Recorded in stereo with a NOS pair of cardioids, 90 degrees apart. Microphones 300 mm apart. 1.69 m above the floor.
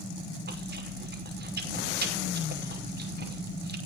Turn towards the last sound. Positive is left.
turn(degrees=-30)